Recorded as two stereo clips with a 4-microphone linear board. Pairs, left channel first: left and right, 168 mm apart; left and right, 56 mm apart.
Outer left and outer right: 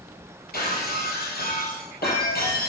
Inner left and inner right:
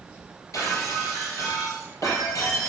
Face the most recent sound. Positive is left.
turn(degrees=70)  # may be behind; listen again after turning